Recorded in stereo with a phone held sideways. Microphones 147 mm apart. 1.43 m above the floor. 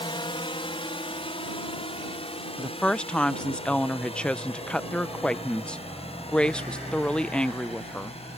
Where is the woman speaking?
5° left (ahead or behind).